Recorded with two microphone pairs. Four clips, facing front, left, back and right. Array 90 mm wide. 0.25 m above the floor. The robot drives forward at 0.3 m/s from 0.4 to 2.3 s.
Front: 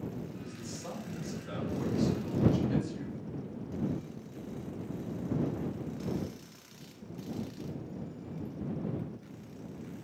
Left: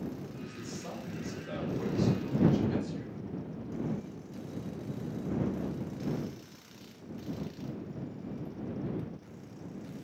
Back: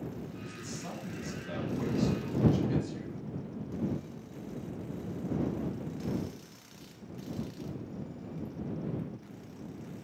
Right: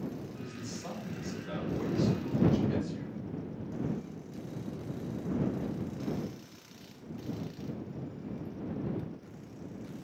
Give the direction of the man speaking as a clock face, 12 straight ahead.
4 o'clock.